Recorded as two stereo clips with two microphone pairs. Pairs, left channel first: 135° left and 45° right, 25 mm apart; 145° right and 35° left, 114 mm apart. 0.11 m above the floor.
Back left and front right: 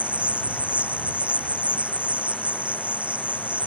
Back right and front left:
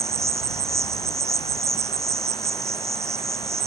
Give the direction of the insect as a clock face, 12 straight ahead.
1 o'clock.